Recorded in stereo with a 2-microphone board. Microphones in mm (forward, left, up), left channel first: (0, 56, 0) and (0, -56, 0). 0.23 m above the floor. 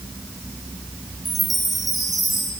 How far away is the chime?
About 3.5 m.